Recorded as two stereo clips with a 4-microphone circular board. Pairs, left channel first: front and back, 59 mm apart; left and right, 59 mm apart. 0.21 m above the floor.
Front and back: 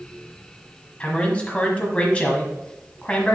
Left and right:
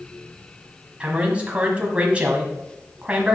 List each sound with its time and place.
1.0 s a man speaking: 45° right, 1.5 m